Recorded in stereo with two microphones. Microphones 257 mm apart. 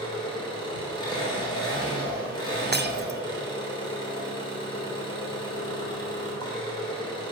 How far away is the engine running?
About 2.5 m.